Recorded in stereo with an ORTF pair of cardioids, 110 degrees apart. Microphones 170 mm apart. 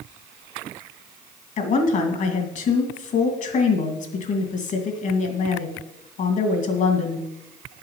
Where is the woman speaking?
50° left, 2.5 m.